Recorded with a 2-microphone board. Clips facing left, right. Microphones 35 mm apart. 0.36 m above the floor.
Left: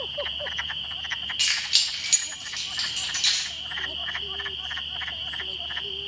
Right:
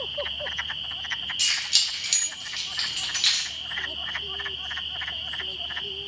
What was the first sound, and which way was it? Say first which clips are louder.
Keys jangling: left 1 dB; 30° left (ahead or behind).